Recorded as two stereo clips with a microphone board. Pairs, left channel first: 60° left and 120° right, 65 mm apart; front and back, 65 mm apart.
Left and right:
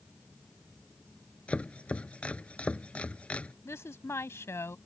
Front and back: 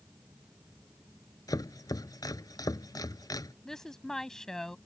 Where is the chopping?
10° right.